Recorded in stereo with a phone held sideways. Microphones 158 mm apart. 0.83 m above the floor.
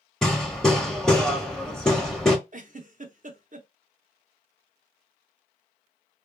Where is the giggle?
55° right (ahead or behind), 0.6 m.